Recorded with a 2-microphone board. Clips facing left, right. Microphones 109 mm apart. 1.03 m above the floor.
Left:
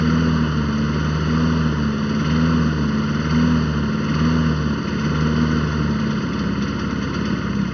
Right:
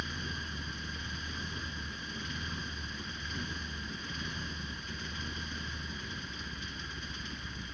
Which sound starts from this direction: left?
A lawn mower, at 0.0 s.